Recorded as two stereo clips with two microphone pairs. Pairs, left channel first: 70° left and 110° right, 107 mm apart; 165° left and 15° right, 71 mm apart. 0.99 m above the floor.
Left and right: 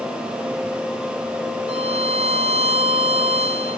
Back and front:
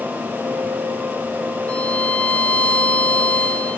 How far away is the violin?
About 0.9 m.